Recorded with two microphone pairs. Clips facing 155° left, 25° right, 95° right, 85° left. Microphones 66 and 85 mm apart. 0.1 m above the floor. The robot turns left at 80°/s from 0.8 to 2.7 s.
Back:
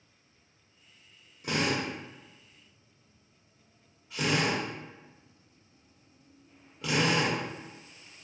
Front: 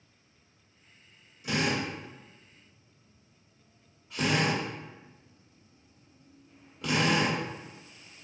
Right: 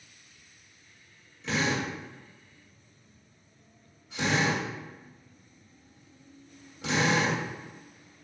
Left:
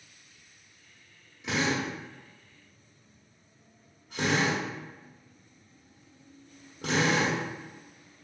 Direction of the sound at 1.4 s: 170° left.